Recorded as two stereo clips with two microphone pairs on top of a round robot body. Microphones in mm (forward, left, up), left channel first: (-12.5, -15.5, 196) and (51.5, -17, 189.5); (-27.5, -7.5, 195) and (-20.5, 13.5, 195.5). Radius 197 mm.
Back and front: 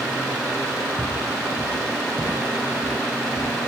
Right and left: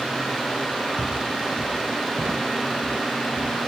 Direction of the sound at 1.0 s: 70° left.